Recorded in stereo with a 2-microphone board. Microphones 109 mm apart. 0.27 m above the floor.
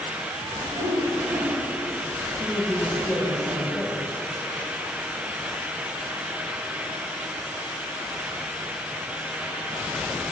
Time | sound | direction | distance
0.7 | a whoosh | 25° right (ahead or behind) | 3 m
2.4 | a man speaking | 20° left (ahead or behind) | 1.7 m